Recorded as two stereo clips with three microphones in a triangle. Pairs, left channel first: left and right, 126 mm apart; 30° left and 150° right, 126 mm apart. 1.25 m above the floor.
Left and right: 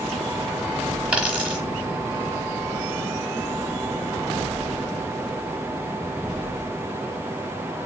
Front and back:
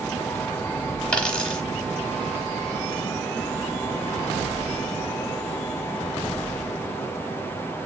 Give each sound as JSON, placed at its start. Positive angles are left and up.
{"t": 1.1, "sound": "a dropped coin", "azimuth_deg": -30, "distance_m": 1.1}